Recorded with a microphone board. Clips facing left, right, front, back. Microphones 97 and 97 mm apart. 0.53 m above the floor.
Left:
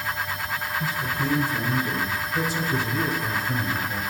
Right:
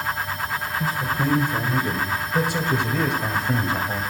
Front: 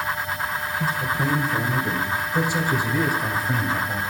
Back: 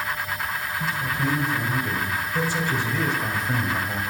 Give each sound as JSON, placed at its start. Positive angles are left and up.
{"t": 0.8, "sound": "a man speaking", "azimuth_deg": -45, "distance_m": 2.5}